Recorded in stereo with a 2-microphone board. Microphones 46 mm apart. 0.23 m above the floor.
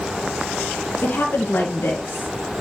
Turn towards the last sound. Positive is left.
turn(degrees=65)  # may be behind; listen again after turning